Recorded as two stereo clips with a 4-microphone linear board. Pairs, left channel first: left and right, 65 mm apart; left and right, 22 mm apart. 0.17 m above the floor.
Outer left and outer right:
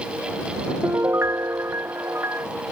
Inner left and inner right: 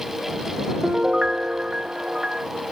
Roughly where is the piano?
Right.